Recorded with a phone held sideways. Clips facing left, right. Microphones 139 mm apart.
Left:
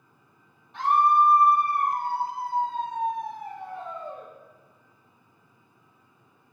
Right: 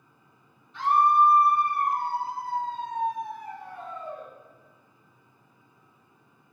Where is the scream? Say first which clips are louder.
Even; 60° left (ahead or behind), 3 m; by 4.3 s 25° left (ahead or behind), 3.5 m.